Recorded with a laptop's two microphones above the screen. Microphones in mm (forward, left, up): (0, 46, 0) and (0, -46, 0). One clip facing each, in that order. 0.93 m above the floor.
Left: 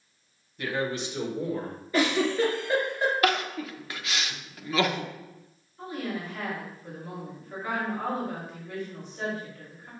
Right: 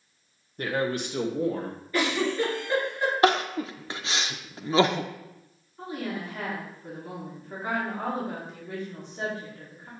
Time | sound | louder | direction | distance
0.6 | a man speaking | right 2 dB | 40° right (ahead or behind) | 0.9 m
1.9 | a giggle | left 2 dB | 20° left (ahead or behind) | 3 m
3.2 | crying | right 4 dB | 30° right (ahead or behind) | 0.5 m
5.8 | a woman speaking | even | 25° right (ahead or behind) | 2 m